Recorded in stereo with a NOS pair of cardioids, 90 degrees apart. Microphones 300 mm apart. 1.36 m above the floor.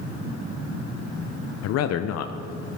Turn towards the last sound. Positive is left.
turn(degrees=55)